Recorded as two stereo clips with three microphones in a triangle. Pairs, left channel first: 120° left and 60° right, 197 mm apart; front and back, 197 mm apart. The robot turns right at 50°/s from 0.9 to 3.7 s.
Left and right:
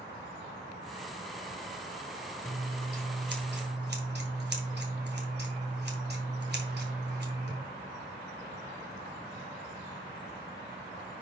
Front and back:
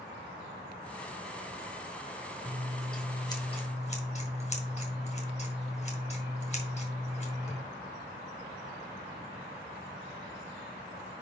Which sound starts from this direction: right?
Scissors, at 2.5 s.